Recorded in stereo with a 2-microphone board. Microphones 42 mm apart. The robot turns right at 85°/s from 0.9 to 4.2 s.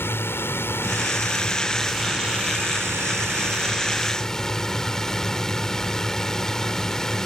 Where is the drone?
90° left; by 7.2 s 15° left.